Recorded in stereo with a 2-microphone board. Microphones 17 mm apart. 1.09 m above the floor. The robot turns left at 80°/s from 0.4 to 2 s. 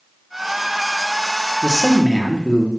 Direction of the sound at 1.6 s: 70° left.